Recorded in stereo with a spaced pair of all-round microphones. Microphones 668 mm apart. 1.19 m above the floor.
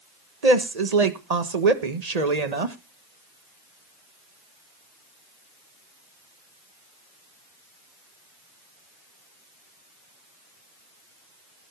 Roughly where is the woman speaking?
Right.